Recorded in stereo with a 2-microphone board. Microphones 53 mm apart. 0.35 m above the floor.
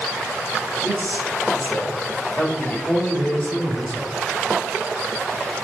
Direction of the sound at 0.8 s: 35° left (ahead or behind).